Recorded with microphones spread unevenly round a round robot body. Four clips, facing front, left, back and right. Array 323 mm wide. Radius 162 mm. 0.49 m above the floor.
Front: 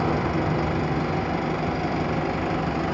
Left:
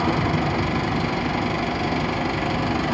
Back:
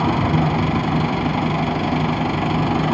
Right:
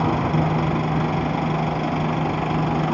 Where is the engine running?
175° right, 2 m.